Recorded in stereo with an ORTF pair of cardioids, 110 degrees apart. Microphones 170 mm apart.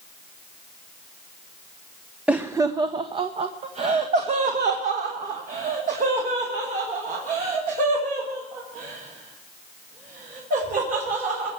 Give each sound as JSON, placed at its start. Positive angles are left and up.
{"t": 2.3, "sound": "laughter", "azimuth_deg": -10, "distance_m": 0.6}